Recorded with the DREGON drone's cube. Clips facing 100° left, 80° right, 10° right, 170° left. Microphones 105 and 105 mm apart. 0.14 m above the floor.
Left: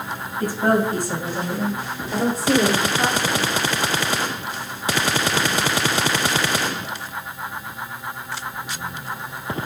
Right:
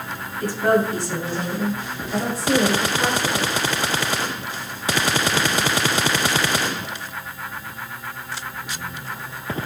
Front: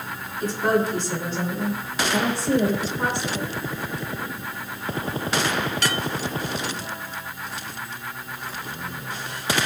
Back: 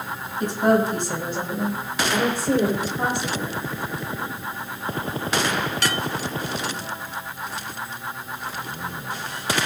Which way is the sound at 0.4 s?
140° left.